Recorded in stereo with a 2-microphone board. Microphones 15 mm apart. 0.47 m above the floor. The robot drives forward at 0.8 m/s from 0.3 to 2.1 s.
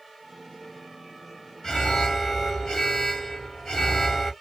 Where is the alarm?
45° left (ahead or behind), 1.6 m.